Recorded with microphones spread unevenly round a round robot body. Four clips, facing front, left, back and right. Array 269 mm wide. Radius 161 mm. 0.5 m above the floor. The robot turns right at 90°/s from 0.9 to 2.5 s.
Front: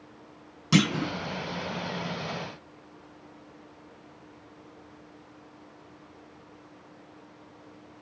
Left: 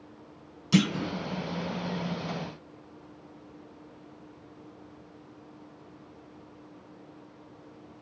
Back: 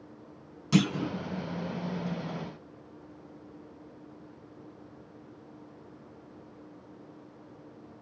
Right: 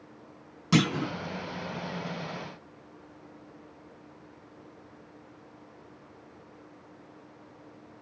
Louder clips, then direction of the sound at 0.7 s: Even, front 2 dB; 55° right.